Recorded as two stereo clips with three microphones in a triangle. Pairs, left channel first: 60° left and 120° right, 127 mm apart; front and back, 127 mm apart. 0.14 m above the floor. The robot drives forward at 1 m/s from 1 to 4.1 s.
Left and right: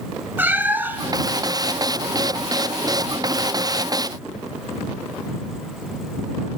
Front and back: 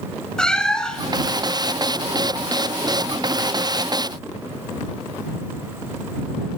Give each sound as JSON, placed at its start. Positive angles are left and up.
{"t": 0.4, "sound": "a cat meowing", "azimuth_deg": -75, "distance_m": 0.6}